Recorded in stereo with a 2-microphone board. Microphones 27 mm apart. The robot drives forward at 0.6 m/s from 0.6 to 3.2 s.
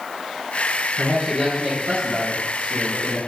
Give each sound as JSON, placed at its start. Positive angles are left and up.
{"t": 1.0, "sound": "a man speaking", "side_deg": -60, "distance_m": 2.0}